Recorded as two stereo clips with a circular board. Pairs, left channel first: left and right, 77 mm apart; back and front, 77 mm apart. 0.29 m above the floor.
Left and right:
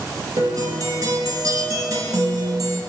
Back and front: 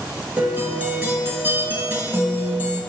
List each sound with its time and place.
0.4 s a guitar: 65° right, 0.6 m